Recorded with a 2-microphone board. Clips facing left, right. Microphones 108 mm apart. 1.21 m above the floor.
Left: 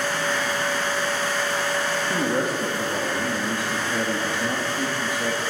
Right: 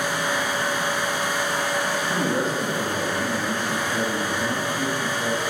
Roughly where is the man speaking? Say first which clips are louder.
Left 1 dB; centre.